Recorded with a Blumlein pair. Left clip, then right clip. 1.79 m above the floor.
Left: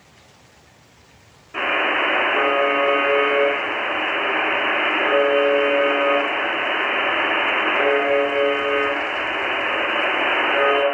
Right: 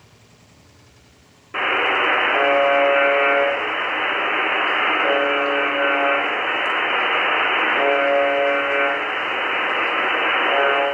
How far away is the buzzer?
About 0.8 m.